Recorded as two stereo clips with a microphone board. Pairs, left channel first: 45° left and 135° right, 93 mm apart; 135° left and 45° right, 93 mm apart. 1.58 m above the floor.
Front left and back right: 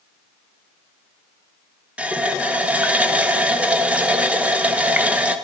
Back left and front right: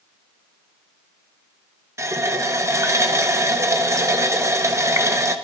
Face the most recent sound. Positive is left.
turn(degrees=-70)